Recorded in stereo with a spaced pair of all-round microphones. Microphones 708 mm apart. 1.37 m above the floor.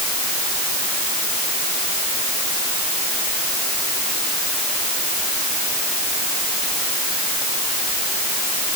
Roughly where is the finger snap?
I don't hear a finger snap.